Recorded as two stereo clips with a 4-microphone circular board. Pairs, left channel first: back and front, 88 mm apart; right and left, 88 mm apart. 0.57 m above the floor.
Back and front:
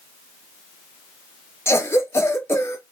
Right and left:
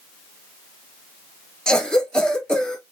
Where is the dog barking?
I don't hear a dog barking.